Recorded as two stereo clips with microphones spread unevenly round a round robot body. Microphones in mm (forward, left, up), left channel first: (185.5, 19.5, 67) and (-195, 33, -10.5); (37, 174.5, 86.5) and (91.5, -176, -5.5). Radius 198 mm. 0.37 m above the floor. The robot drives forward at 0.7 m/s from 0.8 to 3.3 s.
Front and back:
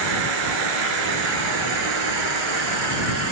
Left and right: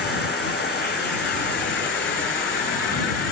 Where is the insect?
170° right, 9 m.